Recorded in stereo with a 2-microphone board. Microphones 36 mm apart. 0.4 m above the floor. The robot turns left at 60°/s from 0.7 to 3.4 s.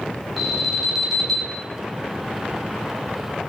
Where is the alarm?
5° right (ahead or behind), 1.4 m; by 1.6 s 15° left (ahead or behind), 1.4 m.